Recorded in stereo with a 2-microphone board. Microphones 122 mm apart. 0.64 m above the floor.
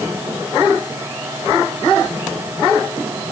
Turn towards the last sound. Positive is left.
No sound to turn to.